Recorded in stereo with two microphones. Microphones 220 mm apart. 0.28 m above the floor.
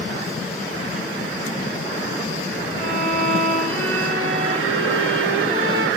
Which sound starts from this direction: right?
A violin, at 2.8 s.